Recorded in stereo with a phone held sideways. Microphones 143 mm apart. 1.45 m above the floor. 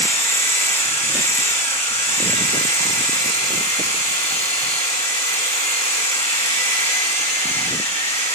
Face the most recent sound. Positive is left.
turn(degrees=40)  # may be behind; listen again after turning